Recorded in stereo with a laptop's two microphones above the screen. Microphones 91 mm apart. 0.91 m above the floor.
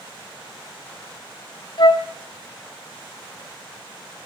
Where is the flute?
55° left (ahead or behind), 0.5 m.